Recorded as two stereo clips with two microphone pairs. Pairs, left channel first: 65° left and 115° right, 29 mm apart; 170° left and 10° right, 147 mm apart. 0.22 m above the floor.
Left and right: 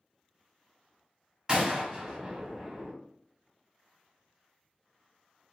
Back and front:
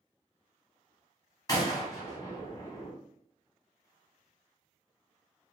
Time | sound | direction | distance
1.5 | a gunshot | 145° right | 0.8 m